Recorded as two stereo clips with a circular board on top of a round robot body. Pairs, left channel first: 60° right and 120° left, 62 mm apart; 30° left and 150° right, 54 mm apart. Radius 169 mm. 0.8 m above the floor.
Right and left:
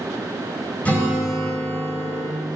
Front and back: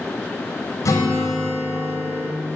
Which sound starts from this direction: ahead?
A guitar, at 0.8 s.